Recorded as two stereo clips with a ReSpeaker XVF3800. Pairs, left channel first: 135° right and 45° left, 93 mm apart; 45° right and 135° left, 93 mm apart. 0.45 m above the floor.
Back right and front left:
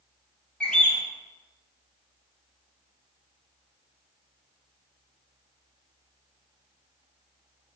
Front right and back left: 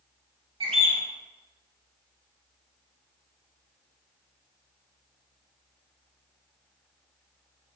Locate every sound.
0.6 s a bird: 145° left, 0.8 m